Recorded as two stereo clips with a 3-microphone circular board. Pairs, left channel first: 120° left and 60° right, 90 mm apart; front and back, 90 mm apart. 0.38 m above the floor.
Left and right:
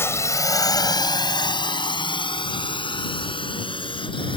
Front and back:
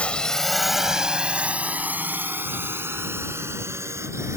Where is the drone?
70° left; by 4.4 s 125° left.